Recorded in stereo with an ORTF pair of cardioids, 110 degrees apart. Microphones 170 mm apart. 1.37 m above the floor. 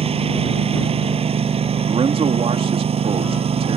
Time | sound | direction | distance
0.0 | a lawn mower | 35° right | ?
1.9 | a man speaking | 35° right | ?